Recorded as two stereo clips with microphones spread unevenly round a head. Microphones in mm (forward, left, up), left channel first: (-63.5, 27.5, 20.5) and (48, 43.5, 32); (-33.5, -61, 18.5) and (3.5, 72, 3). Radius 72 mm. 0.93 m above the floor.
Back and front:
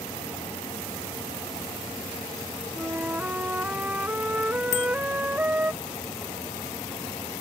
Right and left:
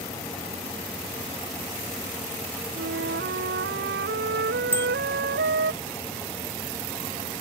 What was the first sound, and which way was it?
A flute, 85° left.